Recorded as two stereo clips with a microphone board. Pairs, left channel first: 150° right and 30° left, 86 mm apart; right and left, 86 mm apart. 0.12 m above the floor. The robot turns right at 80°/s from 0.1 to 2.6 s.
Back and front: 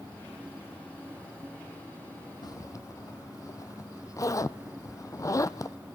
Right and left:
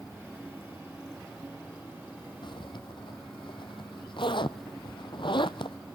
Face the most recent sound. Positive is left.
turn(degrees=-100)